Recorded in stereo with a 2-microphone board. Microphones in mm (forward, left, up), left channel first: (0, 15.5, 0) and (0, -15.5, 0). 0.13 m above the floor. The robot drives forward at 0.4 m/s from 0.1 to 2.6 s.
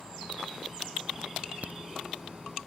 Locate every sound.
1.6 s a crack: 65° right (ahead or behind); by 1.8 s 70° right (ahead or behind)